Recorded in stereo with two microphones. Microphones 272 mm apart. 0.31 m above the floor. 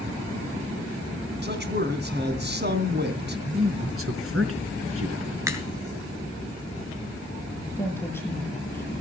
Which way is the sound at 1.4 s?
40° right (ahead or behind).